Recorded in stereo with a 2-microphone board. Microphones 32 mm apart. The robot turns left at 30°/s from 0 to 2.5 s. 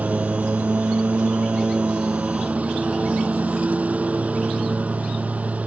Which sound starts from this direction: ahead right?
A lawn mower, at 0.0 s.